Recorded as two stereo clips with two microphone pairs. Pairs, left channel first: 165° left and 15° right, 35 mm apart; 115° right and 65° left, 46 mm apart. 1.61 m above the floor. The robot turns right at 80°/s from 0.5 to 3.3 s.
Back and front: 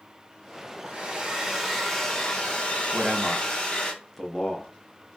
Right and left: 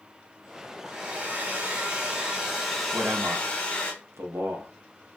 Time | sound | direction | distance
0.8 | a hair dryer | 5° left | 1.1 m
2.9 | a man speaking | 45° left | 0.8 m